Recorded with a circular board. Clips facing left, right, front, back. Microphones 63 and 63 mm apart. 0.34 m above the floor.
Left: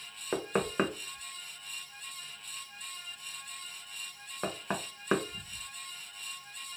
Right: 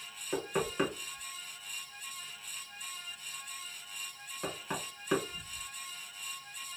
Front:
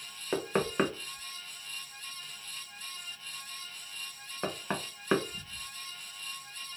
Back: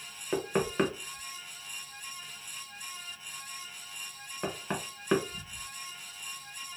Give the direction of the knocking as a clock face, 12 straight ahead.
10 o'clock.